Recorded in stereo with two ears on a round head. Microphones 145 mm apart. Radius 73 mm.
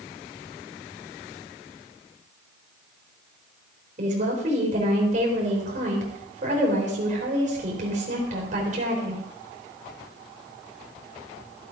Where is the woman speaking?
50° right (ahead or behind), 4 m.